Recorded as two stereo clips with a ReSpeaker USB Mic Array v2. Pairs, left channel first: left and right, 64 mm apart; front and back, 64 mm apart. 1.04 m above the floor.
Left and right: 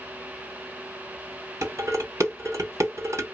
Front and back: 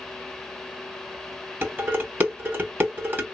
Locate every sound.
1.6 s dishes clattering: 125° right, 1.8 m